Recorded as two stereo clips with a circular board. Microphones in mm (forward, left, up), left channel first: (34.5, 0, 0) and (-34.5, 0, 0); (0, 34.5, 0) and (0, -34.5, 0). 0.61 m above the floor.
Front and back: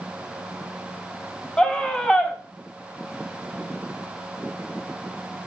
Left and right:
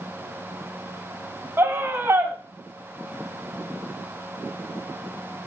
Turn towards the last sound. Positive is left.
turn(degrees=-70)